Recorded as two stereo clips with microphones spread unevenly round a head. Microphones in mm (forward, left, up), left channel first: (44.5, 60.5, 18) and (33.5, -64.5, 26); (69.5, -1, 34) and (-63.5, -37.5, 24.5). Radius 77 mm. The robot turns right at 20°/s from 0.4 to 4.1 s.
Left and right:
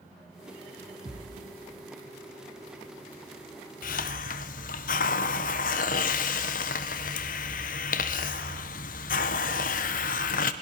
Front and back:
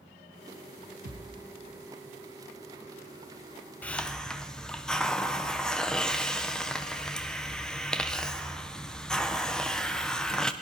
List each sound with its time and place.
1.1 s a thud: 160° right, 5 m; by 1.4 s 155° right, 5 m
3.8 s a hiss: 95° left, 1.4 m; by 10.5 s 100° left, 1.4 m